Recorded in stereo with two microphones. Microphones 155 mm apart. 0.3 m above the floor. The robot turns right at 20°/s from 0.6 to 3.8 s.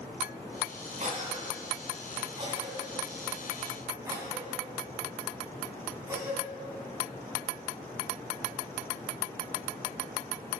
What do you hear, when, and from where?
1.0 s a cough: 55° right (ahead or behind), 2 m; by 6.4 s 15° right (ahead or behind), 2 m